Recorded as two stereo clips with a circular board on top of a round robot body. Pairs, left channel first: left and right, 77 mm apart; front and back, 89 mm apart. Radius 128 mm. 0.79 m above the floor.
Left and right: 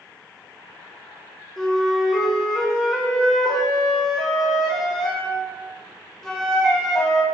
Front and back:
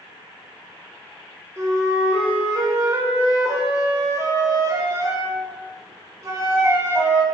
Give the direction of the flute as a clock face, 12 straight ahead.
6 o'clock.